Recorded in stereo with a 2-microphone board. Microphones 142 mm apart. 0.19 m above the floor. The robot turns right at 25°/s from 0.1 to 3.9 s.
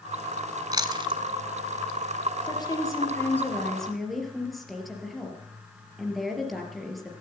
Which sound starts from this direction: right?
Chewing, at 0.7 s.